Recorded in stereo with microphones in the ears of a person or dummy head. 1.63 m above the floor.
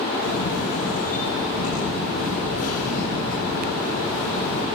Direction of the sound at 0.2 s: 70° left (ahead or behind).